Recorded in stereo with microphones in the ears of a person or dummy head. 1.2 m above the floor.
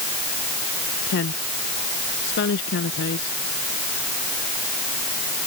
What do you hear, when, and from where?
1.1 s a woman speaking: 65° left (ahead or behind)